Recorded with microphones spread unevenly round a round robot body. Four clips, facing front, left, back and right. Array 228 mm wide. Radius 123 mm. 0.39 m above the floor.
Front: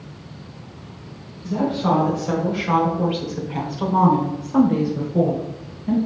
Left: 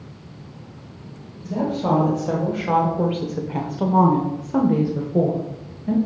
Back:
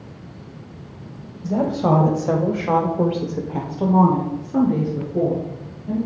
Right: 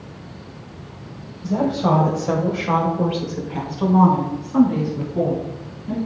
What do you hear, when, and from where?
1.4 s a woman speaking: 170° right, 2.0 m; by 6.0 s 75° left, 1.9 m